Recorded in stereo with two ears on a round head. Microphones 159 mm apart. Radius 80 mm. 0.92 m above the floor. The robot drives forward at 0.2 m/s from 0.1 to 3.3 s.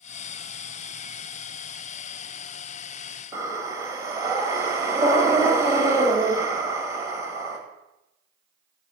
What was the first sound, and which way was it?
Breathing, 20° right (ahead or behind).